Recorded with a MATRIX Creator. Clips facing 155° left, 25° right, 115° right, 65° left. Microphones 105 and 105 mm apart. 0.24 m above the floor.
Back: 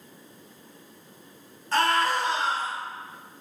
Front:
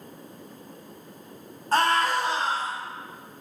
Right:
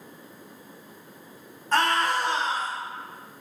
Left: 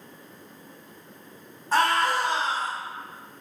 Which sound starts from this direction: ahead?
A scream, at 1.7 s.